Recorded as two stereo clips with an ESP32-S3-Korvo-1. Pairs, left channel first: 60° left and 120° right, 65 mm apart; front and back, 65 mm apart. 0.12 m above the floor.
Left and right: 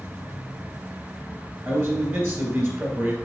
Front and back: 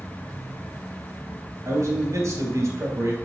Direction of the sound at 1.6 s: 160° right.